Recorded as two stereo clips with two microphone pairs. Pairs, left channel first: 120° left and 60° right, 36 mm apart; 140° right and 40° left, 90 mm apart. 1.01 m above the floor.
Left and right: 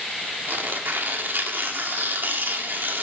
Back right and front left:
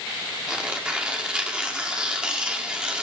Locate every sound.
0.5 s tearing paper: 40° right, 2 m